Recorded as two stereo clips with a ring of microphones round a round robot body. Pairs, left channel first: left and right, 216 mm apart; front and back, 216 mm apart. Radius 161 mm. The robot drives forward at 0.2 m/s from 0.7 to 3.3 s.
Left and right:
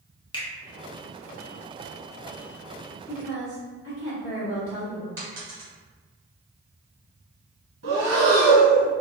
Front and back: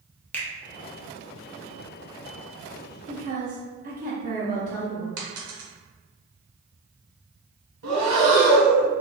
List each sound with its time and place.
0.3 s a finger snap: 70° left, 1.1 m
3.1 s a woman speaking: 135° left, 1.2 m
5.2 s a dropped coin: 170° right, 0.9 m
7.8 s breathing: 145° right, 0.7 m